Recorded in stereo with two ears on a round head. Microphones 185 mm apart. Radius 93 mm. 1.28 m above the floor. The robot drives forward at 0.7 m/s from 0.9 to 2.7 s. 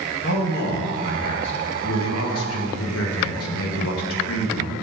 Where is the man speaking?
50° left (ahead or behind), 1.9 m; by 4.7 s 75° left (ahead or behind), 1.5 m.